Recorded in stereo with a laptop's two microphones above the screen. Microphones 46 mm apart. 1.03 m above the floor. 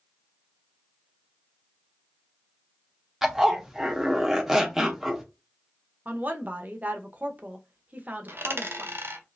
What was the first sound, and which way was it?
A zipper, 5° right (ahead or behind).